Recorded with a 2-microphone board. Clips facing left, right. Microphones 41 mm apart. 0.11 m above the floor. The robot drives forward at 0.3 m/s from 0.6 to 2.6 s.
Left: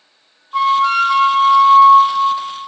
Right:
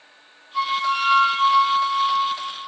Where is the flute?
75° left (ahead or behind), 0.7 m; by 2.4 s 45° left (ahead or behind), 0.9 m.